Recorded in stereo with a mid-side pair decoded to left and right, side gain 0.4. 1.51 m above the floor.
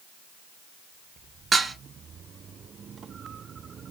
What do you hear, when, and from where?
1.5 s dishes clattering: 40° right, 1.6 m